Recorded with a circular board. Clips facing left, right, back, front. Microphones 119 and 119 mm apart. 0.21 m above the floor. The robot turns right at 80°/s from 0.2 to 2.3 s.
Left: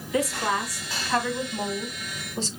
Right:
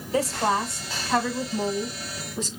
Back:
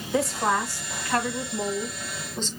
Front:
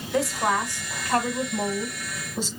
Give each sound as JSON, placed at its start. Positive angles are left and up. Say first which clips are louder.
{"t": 0.1, "sound": "a woman speaking", "louder": "right 2 dB, even", "azimuth_deg": -95, "distance_m": 1.1}